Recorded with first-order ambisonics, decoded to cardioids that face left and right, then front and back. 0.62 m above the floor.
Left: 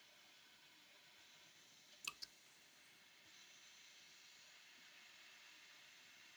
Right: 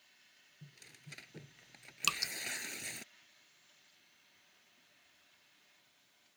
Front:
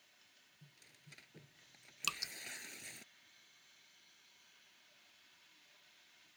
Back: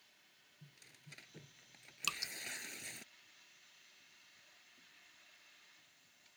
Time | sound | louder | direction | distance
0.6 | tearing paper | right 6 dB, back 4 dB | 95° right | ?
2.0 | dripping | right 17 dB, even | 85° right | ?